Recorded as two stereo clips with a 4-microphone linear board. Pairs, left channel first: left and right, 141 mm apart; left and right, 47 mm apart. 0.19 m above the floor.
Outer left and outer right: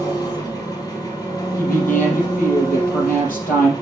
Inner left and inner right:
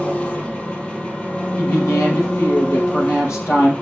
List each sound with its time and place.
0.0 s an engine running: 25° left (ahead or behind), 1.6 m
1.6 s a woman speaking: 75° left (ahead or behind), 5 m